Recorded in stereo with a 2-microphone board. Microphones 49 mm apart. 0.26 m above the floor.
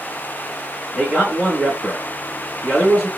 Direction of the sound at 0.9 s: 10° right (ahead or behind).